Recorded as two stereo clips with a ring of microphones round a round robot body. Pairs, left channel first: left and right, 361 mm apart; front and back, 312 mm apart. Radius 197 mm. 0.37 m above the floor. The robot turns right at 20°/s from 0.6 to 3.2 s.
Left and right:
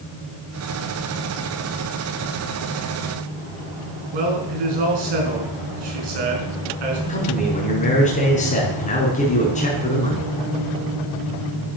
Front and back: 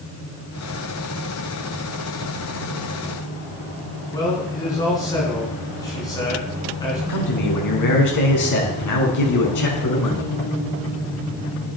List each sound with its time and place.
4.1 s a man speaking: 80° right, 5 m
7.1 s a man speaking: 20° left, 5.5 m